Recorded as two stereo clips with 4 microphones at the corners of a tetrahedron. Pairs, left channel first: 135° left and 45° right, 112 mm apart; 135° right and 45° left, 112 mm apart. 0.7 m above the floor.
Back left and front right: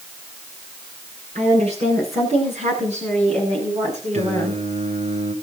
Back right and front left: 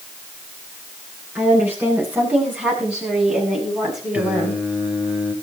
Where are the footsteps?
I don't hear footsteps.